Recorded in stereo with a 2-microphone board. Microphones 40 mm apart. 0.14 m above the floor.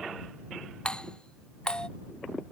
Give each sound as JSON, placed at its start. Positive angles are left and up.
{"t": 0.8, "sound": "a doorbell", "side_deg": 20}